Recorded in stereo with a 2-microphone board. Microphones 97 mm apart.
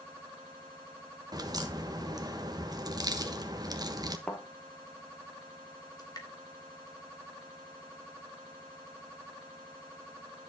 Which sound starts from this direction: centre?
A thud, at 4.3 s.